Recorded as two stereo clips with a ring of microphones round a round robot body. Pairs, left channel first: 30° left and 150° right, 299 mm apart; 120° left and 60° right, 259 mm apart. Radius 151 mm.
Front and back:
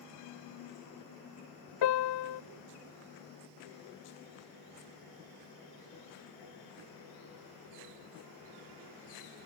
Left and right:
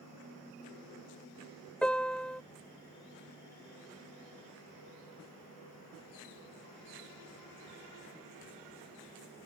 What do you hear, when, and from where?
1.8 s a piano: 35° left